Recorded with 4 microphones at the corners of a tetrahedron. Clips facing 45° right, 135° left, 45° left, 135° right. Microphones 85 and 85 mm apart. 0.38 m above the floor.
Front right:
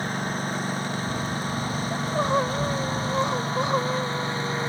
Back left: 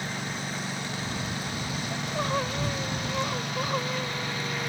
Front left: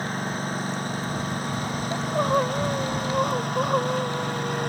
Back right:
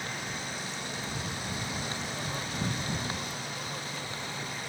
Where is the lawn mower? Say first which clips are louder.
Front right 5 dB, front left 9 dB; straight ahead; by 4.7 s 15° left.